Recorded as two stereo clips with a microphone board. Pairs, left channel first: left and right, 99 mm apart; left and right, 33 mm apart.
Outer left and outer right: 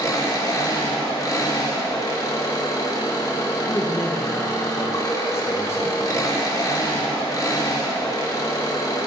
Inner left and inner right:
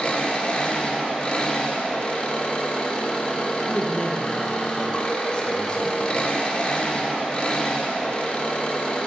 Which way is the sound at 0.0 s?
35° left (ahead or behind).